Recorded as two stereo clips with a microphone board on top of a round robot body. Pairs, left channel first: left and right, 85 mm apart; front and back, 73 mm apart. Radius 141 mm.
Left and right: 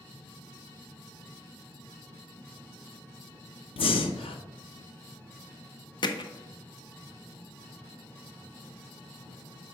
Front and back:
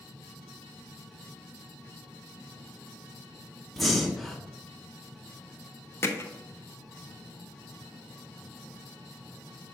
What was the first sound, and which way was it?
Breathing, 90° left.